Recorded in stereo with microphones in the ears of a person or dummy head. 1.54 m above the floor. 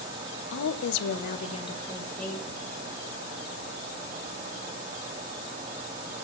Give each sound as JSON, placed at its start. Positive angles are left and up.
{"t": 0.5, "sound": "a woman speaking", "side_deg": 70, "distance_m": 0.7}